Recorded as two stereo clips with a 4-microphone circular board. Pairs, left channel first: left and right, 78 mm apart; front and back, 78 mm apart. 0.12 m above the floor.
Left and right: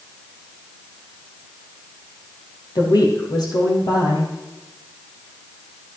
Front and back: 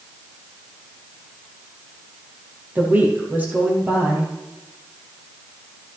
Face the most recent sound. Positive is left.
turn(degrees=115)